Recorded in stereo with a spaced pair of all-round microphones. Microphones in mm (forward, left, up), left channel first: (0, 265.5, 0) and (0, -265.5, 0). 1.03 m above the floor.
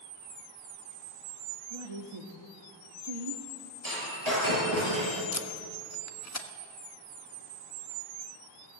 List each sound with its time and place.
1.7 s a woman speaking: 65° right (ahead or behind), 1.8 m
3.8 s breaking glass: 60° right (ahead or behind), 9 m
5.3 s tape being pulled: 30° left (ahead or behind), 1.3 m